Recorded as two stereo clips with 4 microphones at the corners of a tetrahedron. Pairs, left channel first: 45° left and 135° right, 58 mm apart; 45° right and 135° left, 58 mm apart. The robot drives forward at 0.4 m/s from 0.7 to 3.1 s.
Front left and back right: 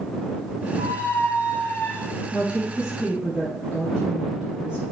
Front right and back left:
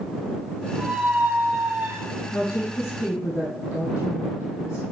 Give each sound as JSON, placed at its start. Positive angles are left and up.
{"t": 0.8, "sound": "a squeak", "azimuth_deg": 65, "distance_m": 1.5}
{"t": 2.3, "sound": "a woman speaking", "azimuth_deg": -60, "distance_m": 4.0}